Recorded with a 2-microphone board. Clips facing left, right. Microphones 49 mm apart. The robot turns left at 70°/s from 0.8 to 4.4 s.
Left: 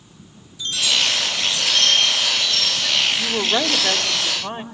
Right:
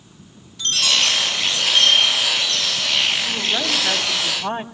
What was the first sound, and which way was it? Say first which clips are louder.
A chime: right 1 dB; 65° right.